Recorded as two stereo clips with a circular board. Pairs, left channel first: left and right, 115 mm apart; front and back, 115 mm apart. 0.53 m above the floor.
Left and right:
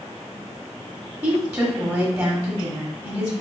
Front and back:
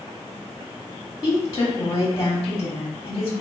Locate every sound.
1.2 s a woman speaking: 40° right, 1.2 m